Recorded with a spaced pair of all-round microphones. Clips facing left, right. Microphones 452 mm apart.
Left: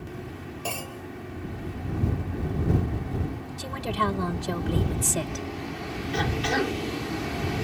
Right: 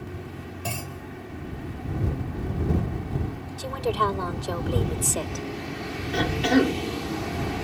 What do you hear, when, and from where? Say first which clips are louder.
0.7 s a clunk: left 1 dB; 40° right (ahead or behind)
3.6 s a woman speaking: right 5 dB; 45° left (ahead or behind)
6.1 s a cough: right 7 dB; 80° right